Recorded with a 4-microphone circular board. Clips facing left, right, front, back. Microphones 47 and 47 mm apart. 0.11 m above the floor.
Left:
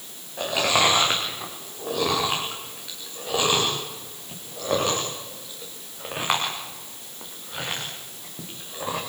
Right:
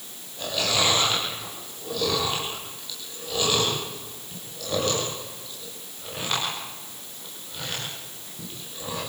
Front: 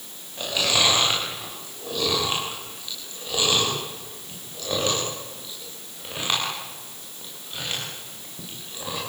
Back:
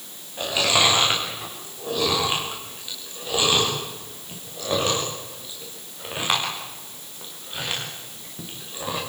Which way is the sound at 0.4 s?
105° left.